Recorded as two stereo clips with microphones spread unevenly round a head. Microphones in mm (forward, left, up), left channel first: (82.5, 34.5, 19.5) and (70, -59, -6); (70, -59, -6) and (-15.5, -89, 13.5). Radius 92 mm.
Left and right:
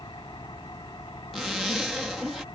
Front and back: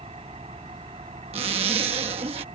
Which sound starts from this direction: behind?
A zipper, at 1.3 s.